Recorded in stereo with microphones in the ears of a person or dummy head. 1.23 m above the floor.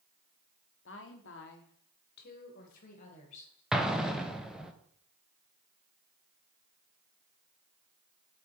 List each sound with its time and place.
0.8 s a woman speaking: 55° left (ahead or behind), 0.9 m; by 3.6 s 45° left (ahead or behind), 1.9 m
3.7 s an explosion: 5° left (ahead or behind), 0.6 m